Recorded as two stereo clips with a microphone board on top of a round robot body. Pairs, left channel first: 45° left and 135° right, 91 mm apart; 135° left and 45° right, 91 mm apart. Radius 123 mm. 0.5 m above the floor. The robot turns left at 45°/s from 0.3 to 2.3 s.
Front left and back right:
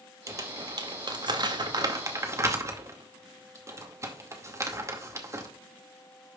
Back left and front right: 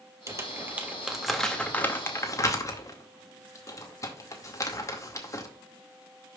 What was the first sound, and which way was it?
Crumpling, 90° right.